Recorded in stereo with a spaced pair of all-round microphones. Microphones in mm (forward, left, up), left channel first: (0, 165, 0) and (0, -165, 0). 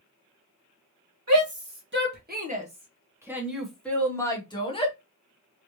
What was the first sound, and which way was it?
A shout, 50° right (ahead or behind).